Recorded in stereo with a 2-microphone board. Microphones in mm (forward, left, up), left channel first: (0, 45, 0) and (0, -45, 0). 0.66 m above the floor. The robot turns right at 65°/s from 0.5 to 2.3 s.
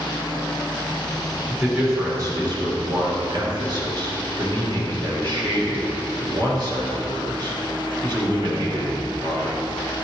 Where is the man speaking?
175° right, 1.9 m; by 9.6 s 125° right, 1.9 m.